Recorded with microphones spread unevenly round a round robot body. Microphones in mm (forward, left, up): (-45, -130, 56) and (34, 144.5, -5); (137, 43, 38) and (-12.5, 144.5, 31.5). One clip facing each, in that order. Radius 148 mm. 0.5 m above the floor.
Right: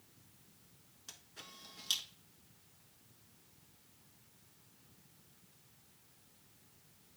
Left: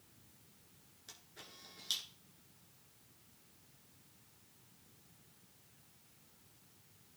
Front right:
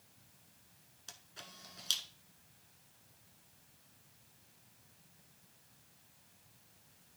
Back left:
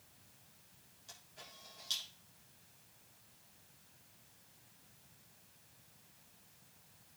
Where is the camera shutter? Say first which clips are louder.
Even, front right 2 dB; 30° right, 1.5 m.